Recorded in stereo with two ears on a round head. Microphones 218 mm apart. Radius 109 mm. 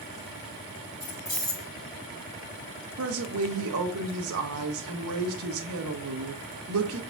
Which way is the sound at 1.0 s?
15° left (ahead or behind).